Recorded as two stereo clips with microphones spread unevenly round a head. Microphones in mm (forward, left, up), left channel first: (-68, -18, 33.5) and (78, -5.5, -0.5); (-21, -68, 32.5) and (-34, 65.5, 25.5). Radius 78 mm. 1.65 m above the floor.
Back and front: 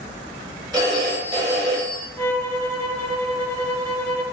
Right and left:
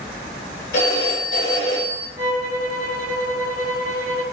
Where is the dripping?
No dripping in this recording.